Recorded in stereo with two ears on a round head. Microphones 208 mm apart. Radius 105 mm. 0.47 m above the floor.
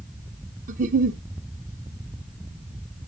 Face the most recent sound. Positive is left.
turn(degrees=-35)  # may be behind; listen again after turning